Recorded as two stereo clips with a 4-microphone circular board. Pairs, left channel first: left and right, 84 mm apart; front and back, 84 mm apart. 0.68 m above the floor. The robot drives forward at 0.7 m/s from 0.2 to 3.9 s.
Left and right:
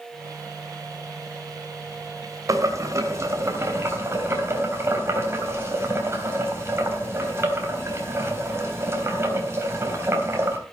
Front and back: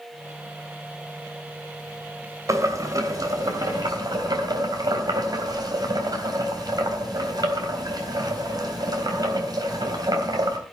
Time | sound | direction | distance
2.5 | boiling | 135° right | 2.5 m